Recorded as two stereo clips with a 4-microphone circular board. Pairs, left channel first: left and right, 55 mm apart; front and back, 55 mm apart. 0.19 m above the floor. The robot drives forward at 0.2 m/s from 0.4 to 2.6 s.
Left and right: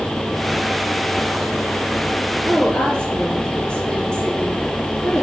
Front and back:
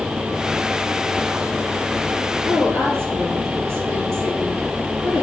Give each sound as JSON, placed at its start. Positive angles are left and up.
{"t": 2.5, "sound": "a woman speaking", "azimuth_deg": 160, "distance_m": 3.5}